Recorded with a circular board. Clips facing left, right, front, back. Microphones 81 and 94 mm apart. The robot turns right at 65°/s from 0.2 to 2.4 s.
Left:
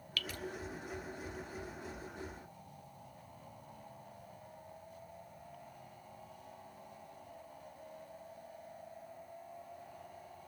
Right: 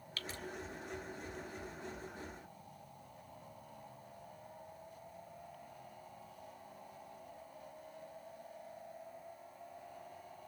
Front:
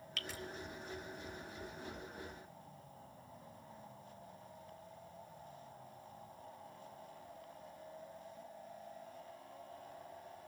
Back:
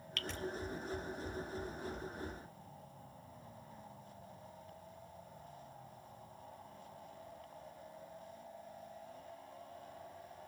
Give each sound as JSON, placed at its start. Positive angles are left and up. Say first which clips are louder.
{"t": 0.2, "sound": "dripping", "louder": "left 3 dB, back 3 dB", "azimuth_deg": -85, "distance_m": 0.6}